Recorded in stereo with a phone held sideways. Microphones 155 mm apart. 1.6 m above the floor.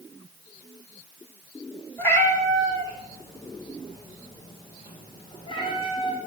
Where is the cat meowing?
15° left (ahead or behind), 3 m; by 6.2 s 35° left (ahead or behind), 5 m.